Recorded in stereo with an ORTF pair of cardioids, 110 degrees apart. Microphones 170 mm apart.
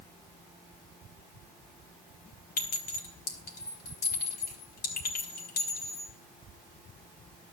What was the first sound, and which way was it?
A clink, 60° left.